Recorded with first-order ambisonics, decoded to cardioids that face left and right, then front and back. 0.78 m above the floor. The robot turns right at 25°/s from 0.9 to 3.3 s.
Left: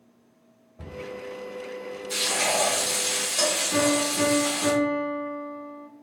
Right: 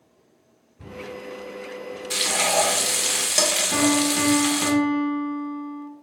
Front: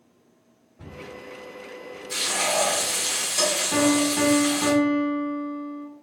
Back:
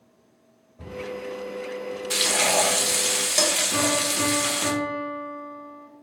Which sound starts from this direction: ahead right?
A piano, at 3.7 s.